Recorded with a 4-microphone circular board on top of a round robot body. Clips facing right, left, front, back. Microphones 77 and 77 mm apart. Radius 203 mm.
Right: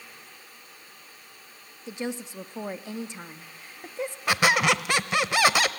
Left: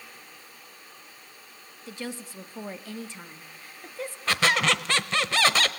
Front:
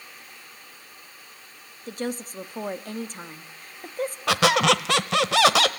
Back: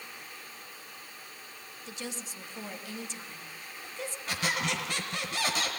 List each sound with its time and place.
1.9 s a woman speaking: 25° right, 1.8 m
4.3 s a squeak: 15° right, 0.9 m